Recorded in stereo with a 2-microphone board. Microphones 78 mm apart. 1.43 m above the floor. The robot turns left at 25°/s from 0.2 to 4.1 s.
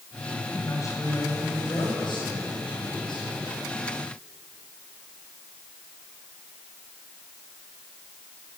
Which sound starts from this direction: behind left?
A man speaking, at 0.5 s.